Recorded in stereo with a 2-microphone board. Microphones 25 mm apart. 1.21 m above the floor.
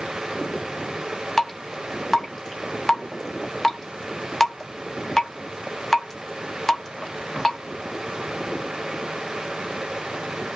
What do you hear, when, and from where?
1.4 s dripping: 15° left (ahead or behind), 1.1 m